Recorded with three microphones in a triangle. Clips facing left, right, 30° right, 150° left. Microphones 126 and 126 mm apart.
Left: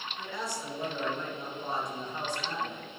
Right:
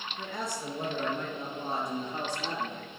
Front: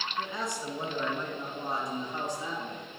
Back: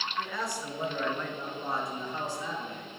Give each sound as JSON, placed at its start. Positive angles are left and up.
{"t": 0.2, "sound": "a man speaking", "azimuth_deg": -90, "distance_m": 1.8}